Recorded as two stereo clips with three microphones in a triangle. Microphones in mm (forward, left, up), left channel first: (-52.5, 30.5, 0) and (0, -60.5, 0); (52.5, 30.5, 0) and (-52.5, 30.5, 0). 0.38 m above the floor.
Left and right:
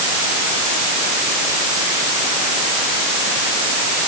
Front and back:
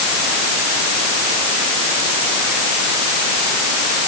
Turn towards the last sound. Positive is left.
No sound to turn to.